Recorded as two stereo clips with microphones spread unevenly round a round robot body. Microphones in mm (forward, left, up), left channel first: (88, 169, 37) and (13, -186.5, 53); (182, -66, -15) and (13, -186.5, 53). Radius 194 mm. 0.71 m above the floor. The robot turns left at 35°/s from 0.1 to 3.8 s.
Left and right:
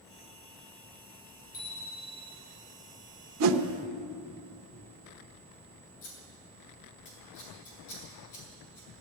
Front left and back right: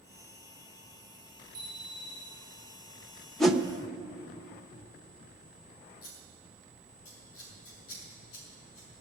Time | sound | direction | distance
1.5 | a bicycle bell | 130° left | 7.5 m
3.4 | a whoosh | 50° right | 1.0 m
6.0 | scissors | 40° left | 6 m